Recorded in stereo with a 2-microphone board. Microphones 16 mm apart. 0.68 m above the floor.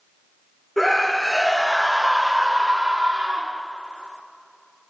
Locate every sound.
0.8 s a scream: 15° left (ahead or behind), 1.7 m; by 3.6 s 65° right (ahead or behind), 1.4 m